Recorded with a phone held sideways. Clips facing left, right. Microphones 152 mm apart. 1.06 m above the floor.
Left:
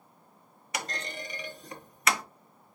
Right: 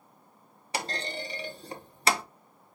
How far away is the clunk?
About 0.5 m.